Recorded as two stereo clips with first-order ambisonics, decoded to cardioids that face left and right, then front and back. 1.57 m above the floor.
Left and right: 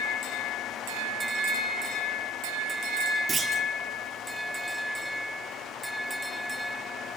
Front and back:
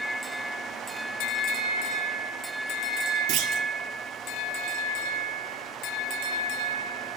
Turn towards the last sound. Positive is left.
turn(degrees=-165)